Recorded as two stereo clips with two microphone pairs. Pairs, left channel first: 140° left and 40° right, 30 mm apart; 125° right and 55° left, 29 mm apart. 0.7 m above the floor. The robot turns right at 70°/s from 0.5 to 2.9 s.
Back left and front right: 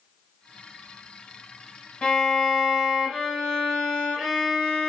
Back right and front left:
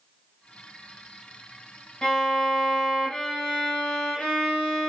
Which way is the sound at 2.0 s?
170° right.